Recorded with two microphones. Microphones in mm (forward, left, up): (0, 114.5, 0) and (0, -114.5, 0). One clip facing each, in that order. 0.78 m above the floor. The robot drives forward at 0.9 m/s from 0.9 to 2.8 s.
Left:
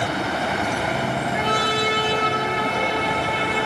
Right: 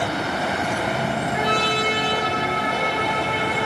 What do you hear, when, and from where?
1.3 s a trumpet: 35° right (ahead or behind), 2 m; by 3.7 s 25° right (ahead or behind), 3.5 m